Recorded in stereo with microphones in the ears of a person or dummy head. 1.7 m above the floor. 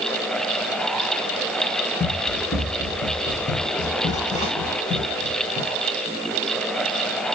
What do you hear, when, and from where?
2.0 s running footsteps: 20° left (ahead or behind), 3.5 m; by 5.8 s 15° left (ahead or behind), 6 m